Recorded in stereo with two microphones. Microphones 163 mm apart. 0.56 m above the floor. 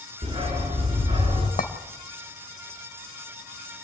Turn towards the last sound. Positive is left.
turn(degrees=55)  # may be behind; listen again after turning